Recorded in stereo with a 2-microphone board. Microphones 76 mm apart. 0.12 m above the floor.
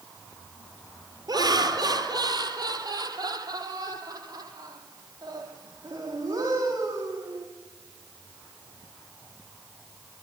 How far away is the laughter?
About 3.5 m.